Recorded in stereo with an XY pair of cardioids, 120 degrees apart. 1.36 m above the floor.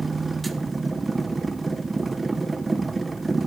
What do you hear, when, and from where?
0.0 s a machine running: 15° right, 1.1 m